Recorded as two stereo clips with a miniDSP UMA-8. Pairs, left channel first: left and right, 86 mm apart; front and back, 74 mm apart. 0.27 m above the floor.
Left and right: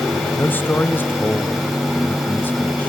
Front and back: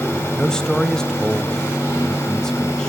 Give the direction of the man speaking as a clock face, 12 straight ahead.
10 o'clock.